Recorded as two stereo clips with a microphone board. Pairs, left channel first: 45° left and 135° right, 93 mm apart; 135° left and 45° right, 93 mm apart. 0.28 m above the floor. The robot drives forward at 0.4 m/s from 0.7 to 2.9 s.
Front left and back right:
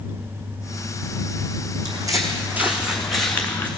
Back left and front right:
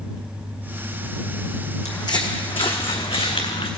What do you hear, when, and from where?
1.9 s footsteps: 175° right, 1.1 m; by 3.7 s 115° left, 1.6 m